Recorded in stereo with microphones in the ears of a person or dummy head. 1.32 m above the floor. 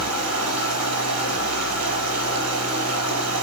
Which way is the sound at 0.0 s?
75° right (ahead or behind).